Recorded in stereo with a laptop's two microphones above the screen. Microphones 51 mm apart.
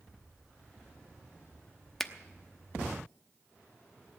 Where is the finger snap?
5° left (ahead or behind), 0.9 m.